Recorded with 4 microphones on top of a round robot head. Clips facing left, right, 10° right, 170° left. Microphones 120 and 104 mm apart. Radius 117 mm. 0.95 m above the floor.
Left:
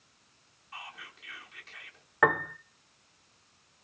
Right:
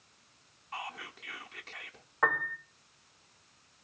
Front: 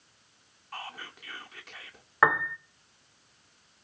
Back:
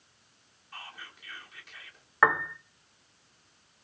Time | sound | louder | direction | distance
0.7 | whispering | right 5 dB, front 5 dB | 50° right | 1.7 m
2.2 | a piano | left 5 dB, even | 75° left | 0.8 m